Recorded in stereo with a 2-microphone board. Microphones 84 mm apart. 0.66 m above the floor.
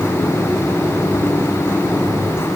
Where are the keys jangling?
No keys jangling in this recording.